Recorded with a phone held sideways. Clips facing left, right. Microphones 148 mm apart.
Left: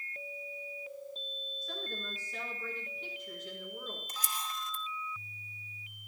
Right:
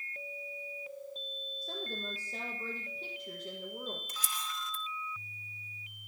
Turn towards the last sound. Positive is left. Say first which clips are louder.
# left 1 dB
turn(degrees=40)  # may be behind; listen again after turning